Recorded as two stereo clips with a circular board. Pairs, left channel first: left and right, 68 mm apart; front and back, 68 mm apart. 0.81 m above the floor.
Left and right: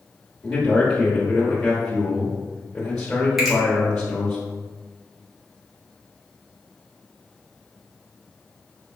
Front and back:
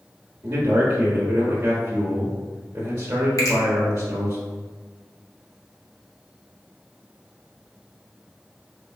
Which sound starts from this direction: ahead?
A finger snap, at 3.4 s.